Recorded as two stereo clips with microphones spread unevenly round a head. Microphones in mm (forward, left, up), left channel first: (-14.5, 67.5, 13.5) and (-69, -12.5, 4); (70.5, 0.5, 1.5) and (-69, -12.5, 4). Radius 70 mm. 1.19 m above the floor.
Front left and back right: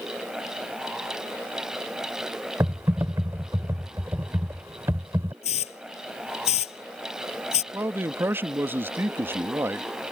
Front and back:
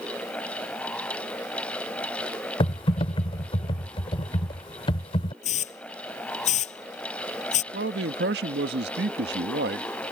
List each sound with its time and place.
2.6 s typing on a keyboard: 50° right
5.4 s a hiss: 50° left
7.7 s a man speaking: 170° left